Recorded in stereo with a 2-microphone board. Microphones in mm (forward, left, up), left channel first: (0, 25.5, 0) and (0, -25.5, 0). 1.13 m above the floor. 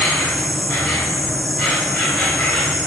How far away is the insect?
About 1.3 m.